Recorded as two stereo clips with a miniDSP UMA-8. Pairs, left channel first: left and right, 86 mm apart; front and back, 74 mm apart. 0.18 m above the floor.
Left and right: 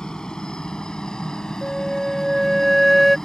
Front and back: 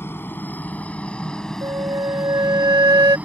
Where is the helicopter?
15° left; by 3.3 s 165° left.